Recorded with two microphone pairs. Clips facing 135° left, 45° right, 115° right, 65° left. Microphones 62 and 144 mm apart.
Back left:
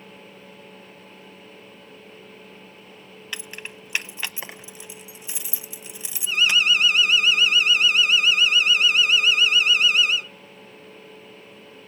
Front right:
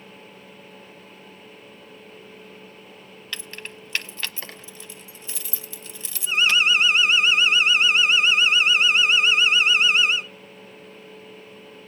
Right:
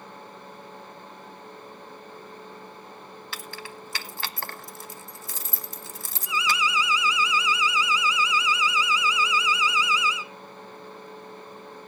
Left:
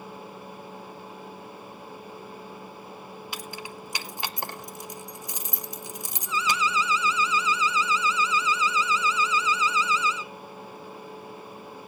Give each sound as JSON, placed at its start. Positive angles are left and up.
{"t": 3.3, "sound": "keys jangling", "azimuth_deg": 105, "distance_m": 0.7}
{"t": 6.3, "sound": "an alarm", "azimuth_deg": -55, "distance_m": 0.7}